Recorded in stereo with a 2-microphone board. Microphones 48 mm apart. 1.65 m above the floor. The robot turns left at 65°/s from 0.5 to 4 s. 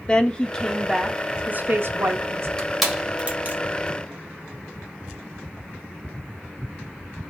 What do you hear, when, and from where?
0.1 s a woman speaking: 25° left, 0.7 m; by 2.5 s 105° right, 0.7 m
2.6 s crushing: 20° left (ahead or behind), 1.5 m; by 3.6 s 45° right (ahead or behind), 1.5 m